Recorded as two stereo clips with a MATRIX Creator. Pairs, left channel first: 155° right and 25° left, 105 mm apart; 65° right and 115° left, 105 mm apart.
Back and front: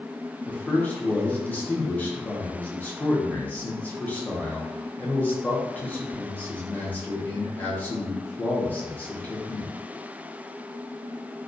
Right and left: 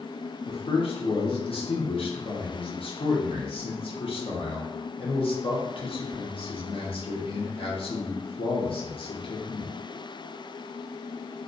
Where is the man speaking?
85° right, 0.7 m.